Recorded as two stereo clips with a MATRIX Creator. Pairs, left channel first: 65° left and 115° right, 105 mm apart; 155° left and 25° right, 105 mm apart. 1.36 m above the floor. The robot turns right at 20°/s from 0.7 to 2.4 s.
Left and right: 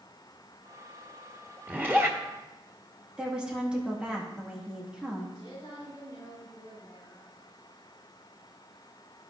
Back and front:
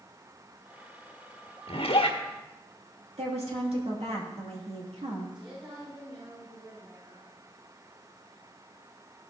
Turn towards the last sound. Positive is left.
turn(degrees=15)